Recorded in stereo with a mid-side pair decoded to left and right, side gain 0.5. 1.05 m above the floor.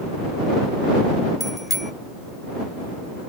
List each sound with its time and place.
1.4 s a bicycle bell: 5° left